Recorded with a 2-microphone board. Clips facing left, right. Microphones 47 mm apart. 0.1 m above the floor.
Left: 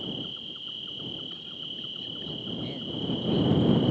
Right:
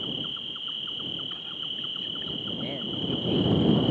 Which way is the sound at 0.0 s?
35° right (ahead or behind).